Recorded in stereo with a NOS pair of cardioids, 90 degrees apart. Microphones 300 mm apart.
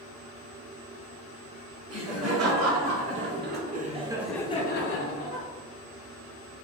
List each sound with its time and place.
1.9 s laughter: 55° right, 1.9 m; by 5.5 s 75° left, 0.8 m